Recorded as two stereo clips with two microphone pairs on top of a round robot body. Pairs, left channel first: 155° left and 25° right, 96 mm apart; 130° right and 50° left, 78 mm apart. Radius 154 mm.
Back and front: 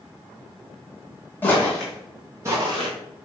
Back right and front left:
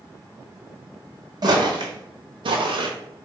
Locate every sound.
1.4 s footsteps: 85° left, 1.0 m; by 2.9 s 20° left, 0.8 m